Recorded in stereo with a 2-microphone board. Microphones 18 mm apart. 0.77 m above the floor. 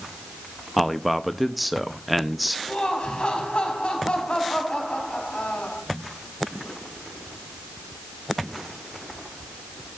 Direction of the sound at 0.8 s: 5° right (ahead or behind).